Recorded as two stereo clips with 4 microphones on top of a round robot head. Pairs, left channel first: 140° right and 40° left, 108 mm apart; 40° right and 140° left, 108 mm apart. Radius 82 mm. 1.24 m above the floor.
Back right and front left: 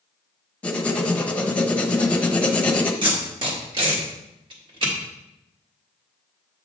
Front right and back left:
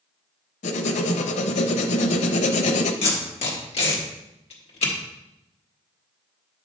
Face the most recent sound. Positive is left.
turn(degrees=-10)